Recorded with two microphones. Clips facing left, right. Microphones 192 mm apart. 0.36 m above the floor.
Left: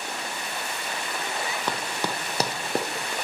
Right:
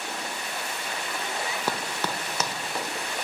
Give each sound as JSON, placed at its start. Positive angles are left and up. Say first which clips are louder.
{"t": 1.7, "sound": "running footsteps", "louder": "left 1 dB", "side_deg": -10, "distance_m": 0.6}